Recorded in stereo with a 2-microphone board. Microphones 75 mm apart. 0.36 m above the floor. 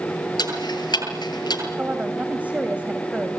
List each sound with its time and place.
0.4 s ticking: 80° left, 8 m
1.8 s a woman speaking: 20° right (ahead or behind), 2.5 m